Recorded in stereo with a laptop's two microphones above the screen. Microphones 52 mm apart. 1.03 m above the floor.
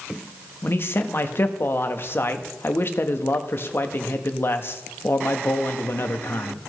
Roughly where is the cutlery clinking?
I don't hear cutlery clinking.